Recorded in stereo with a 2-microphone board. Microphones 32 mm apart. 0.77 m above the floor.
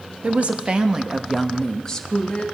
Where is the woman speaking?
50° right (ahead or behind), 1.4 m; by 2.5 s 35° left (ahead or behind), 1.5 m.